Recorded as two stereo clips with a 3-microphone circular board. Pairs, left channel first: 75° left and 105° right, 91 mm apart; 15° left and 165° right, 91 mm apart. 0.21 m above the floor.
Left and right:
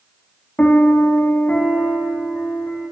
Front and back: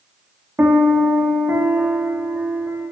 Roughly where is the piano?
Behind left.